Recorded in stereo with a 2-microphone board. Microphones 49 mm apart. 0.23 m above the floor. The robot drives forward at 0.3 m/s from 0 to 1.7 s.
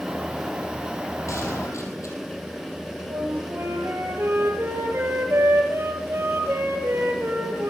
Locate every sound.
1.3 s a gunshot: 80° left, 5.5 m
3.1 s a flute: 55° right (ahead or behind), 3.5 m